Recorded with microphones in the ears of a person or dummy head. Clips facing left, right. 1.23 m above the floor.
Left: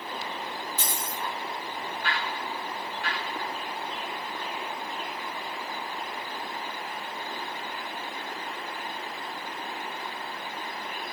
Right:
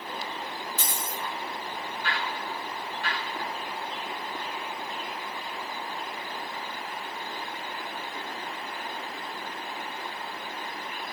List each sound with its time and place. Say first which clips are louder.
0.8 s a dropped coin: even; 45° right (ahead or behind), 0.8 m